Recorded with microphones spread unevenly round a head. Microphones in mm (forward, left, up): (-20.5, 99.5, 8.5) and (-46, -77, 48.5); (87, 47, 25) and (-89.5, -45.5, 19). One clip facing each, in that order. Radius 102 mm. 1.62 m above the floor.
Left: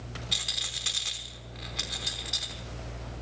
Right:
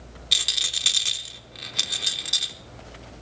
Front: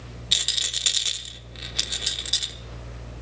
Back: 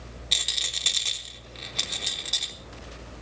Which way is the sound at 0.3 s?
50° right.